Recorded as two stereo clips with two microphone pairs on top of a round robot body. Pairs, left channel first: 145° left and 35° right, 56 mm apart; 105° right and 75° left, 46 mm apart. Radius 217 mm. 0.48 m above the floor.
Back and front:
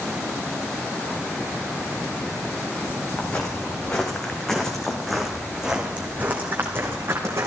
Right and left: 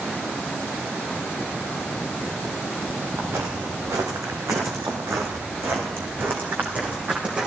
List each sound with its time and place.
3.2 s footsteps: 80° left, 3 m; by 7.5 s 5° left, 1.9 m